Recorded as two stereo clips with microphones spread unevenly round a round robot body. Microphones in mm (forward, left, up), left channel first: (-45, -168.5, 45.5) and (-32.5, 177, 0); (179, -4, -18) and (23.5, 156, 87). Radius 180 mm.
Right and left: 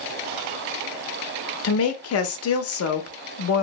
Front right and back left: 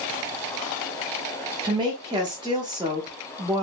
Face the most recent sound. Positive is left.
turn(degrees=-130)